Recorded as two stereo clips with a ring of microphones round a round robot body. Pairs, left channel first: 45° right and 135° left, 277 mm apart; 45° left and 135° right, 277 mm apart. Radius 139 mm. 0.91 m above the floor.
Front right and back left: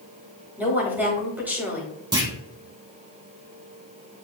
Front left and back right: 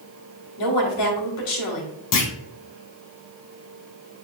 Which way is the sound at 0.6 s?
50° left.